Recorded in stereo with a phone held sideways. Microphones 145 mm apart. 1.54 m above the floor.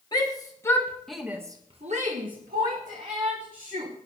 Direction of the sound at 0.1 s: 30° left (ahead or behind).